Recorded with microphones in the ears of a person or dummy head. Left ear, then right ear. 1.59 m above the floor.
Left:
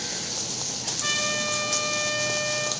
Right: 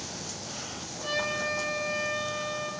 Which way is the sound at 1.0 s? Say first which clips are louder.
Left 3 dB; 50° left (ahead or behind).